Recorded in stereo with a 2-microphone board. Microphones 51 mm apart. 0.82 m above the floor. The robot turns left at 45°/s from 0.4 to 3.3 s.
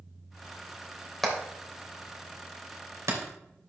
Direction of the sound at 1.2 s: Centre (ahead or behind).